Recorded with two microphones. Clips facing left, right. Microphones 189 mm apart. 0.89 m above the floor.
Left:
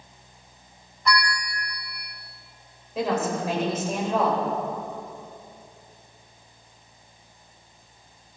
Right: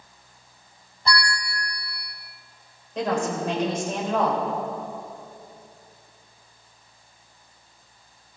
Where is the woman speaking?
5° left (ahead or behind), 4.5 m.